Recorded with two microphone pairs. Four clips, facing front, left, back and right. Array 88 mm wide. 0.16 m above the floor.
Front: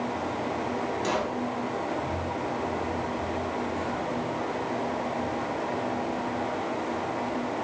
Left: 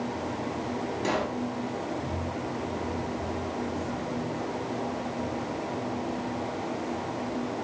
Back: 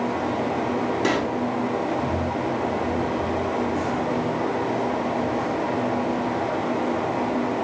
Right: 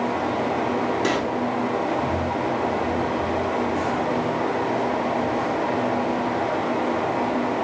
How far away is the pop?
About 1.4 m.